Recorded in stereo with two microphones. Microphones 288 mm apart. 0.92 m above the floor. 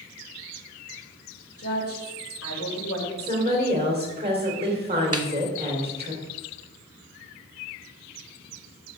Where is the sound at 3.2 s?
20° right (ahead or behind), 3 m.